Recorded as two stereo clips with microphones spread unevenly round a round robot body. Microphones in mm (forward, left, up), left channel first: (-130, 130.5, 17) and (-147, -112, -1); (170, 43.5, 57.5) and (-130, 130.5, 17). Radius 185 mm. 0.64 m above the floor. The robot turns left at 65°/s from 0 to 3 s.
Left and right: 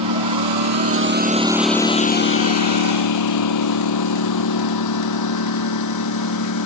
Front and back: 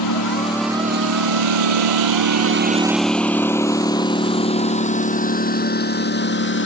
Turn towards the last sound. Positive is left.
turn(degrees=40)